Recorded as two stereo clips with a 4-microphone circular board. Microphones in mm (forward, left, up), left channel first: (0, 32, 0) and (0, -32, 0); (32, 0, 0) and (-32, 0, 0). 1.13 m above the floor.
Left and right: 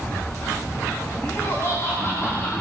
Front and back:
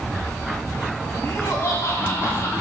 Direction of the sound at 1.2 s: 45° left.